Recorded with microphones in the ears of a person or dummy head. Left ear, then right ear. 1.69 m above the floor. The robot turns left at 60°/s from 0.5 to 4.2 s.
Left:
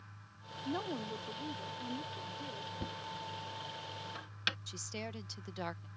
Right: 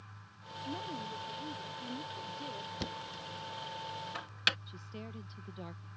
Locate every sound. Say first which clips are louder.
0.7 s a woman speaking: left 2 dB; 95° left; by 2.7 s 30° right
2.8 s knocking: right 1 dB; 60° right (ahead or behind); by 4.6 s 25° right (ahead or behind)
4.7 s a woman speaking: left 5 dB; 60° left (ahead or behind)